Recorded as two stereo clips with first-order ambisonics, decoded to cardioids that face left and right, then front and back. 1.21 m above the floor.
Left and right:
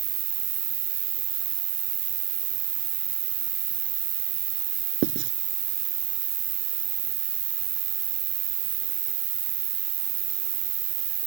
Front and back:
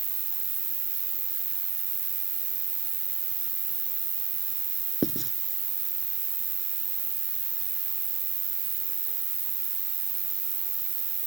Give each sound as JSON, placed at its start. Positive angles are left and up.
{"t": 0.0, "sound": "an insect", "azimuth_deg": -115}
{"t": 5.0, "sound": "writing", "azimuth_deg": -90}